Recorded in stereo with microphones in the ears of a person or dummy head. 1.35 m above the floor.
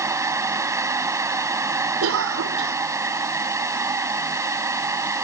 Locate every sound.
0.0 s a fan: 20° right (ahead or behind)
2.0 s a cough: 85° right